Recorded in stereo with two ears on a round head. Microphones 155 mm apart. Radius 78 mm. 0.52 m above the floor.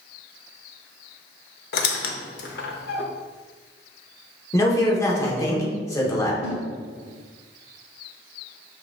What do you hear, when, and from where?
1.7 s a squeak: 60° left (ahead or behind), 0.5 m
4.5 s a man speaking: 20° left (ahead or behind), 1.0 m
6.4 s a snare drum: 40° left (ahead or behind), 1.4 m